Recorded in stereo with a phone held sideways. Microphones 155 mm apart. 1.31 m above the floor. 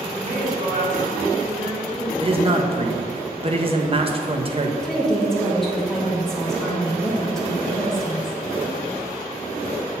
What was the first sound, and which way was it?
A woman speaking, 60° right (ahead or behind).